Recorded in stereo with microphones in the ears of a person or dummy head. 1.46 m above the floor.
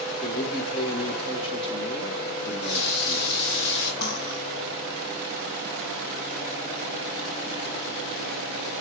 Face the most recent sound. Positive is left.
turn(degrees=55)  # may be behind; listen again after turning